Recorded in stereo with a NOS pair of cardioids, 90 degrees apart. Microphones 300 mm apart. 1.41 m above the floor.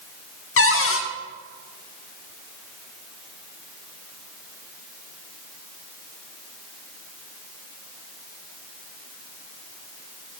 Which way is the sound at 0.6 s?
45° left.